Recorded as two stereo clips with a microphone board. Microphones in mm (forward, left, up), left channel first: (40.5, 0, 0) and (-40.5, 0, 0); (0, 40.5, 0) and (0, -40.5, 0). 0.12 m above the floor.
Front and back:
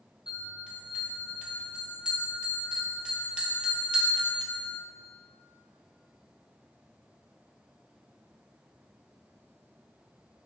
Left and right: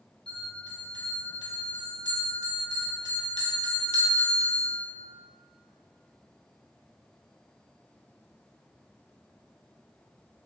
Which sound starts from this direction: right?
A bell, at 0.3 s.